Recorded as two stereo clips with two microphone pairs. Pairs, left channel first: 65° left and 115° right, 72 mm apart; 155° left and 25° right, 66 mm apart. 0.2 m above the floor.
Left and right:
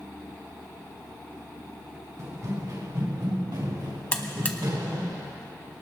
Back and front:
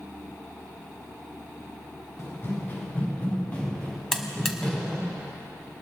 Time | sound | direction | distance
2.2 | running footsteps | 155° right | 4 m
4.1 | a buzzer | 80° left | 1.2 m